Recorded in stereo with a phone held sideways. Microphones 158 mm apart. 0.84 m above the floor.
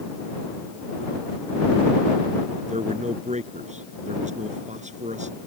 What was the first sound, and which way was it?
A man speaking, 50° right (ahead or behind).